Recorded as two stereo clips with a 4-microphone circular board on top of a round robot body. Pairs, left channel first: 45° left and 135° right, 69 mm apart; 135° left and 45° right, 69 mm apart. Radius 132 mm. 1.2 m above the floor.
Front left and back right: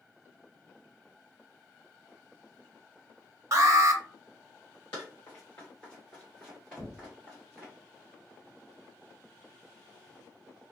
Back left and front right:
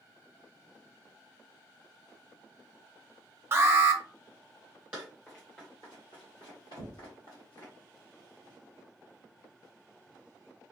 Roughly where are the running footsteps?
Ahead left.